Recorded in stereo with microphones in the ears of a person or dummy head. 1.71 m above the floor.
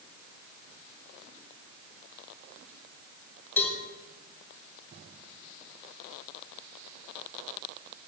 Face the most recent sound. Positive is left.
turn(degrees=20)  # may be behind; listen again after turning